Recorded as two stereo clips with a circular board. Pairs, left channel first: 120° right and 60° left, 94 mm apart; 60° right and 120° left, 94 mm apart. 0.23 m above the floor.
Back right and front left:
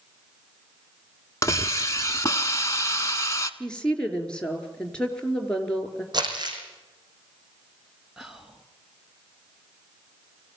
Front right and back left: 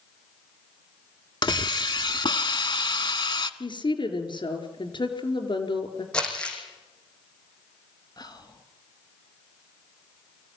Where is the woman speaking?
40° right, 4.5 m.